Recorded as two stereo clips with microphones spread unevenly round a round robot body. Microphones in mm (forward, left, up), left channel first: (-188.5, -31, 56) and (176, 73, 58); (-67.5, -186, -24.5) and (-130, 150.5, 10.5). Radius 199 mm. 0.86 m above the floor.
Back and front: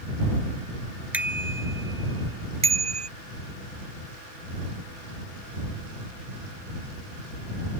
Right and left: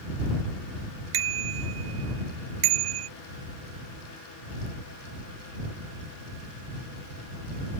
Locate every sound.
1.1 s a bicycle bell: 100° left; by 3.1 s 85° left